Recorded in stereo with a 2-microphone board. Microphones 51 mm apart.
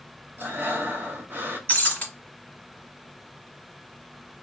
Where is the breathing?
50° right (ahead or behind), 0.7 m.